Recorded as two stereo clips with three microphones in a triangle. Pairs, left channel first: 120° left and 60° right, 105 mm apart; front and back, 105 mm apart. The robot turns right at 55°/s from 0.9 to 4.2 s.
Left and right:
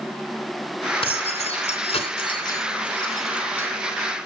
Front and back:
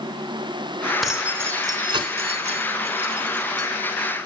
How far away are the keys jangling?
About 3 m.